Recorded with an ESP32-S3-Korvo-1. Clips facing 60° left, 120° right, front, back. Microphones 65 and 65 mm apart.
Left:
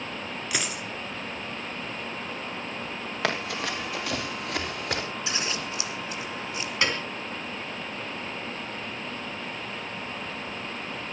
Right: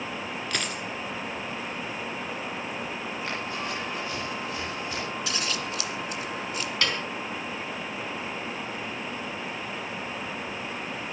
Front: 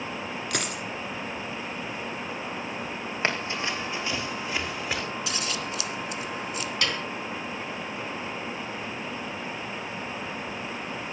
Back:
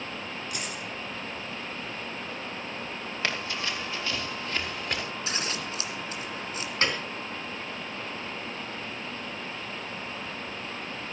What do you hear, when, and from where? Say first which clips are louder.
0.5 s a dropped coin: left 1 dB, front 5 dB; 25° right, 2 m
3.2 s running footsteps: left 6 dB, front 3 dB; 60° left, 4 m; by 5.0 s 85° left, 4.5 m
5.3 s scissors: even, front 1 dB; 125° left, 2.0 m
6.8 s a piano: left 2 dB, back 2 dB; 125° left, 3.5 m